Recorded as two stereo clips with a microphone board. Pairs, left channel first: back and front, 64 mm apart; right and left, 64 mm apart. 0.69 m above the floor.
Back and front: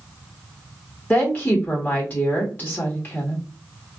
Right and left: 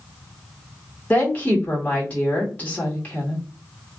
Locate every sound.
1.1 s a woman speaking: 135° right, 1.3 m